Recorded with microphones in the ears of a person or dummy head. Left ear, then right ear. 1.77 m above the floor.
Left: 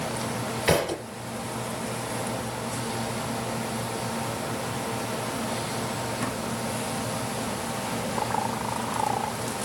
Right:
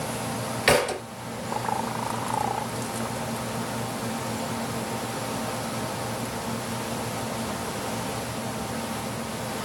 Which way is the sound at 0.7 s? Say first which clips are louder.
Right 3 dB; 40° right (ahead or behind).